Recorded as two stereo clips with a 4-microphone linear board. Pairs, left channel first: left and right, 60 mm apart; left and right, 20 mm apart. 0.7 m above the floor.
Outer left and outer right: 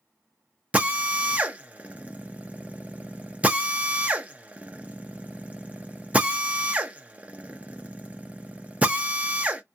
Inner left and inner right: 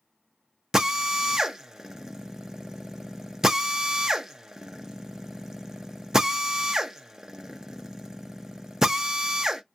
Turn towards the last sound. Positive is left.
turn(degrees=-25)  # may be behind; listen again after turning